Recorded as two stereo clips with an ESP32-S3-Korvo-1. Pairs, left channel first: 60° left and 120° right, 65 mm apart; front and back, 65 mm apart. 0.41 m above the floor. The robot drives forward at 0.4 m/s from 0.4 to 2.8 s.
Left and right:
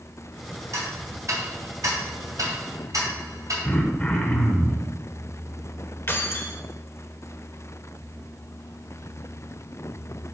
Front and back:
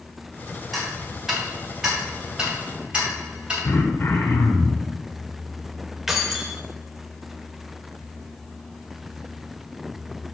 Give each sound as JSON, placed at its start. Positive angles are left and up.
{"t": 0.7, "sound": "ticking", "azimuth_deg": -85, "distance_m": 2.5}
{"t": 3.6, "sound": "throat clearing", "azimuth_deg": 5, "distance_m": 0.8}
{"t": 6.1, "sound": "keys jangling", "azimuth_deg": 95, "distance_m": 0.7}